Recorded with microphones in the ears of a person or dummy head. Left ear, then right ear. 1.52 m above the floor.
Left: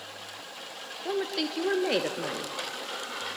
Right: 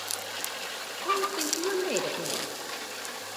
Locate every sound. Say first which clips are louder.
1.1 s a woman speaking: right 2 dB; 20° left (ahead or behind), 0.6 m